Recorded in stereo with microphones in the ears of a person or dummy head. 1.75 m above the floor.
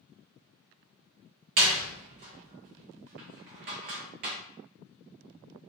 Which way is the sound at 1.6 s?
40° right (ahead or behind).